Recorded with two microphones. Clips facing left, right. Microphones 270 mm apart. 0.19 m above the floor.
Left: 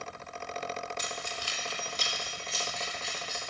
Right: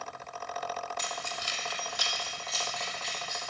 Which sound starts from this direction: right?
Keys jangling, at 1.0 s.